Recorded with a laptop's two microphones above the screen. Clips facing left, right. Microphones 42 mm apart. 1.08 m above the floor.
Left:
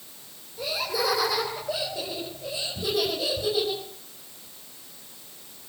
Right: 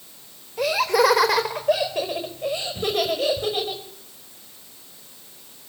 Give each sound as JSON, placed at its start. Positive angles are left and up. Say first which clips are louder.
{"t": 0.6, "sound": "laughter", "louder": "right 9 dB", "side_deg": -65, "distance_m": 3.5}